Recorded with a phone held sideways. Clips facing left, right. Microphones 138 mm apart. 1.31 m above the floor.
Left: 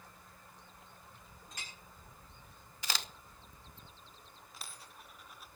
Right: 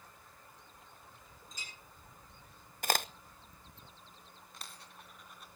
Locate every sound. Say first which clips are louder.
1.5 s a clink: left 2 dB; 65° left (ahead or behind), 5.5 m
2.8 s a crack: right 8 dB; 50° right (ahead or behind), 0.7 m
4.5 s a dropped coin: even; 5° left (ahead or behind), 2.0 m